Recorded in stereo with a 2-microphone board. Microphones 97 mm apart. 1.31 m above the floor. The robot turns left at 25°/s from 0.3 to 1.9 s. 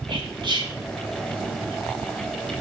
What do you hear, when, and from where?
0.1 s whispering: 55° right (ahead or behind), 1.7 m; by 0.7 s 45° right (ahead or behind), 1.7 m